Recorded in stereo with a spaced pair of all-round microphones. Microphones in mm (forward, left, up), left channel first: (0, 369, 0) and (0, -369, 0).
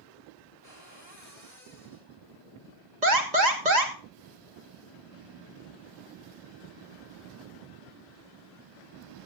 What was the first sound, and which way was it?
A cupboard door, 60° right (ahead or behind).